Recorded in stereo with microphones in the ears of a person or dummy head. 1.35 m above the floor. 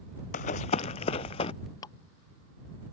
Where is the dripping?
25° left (ahead or behind).